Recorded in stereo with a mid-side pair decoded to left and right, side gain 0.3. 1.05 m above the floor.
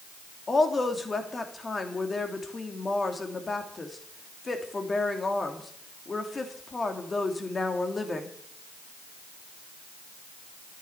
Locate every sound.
0.5 s a woman speaking: 40° left, 2.5 m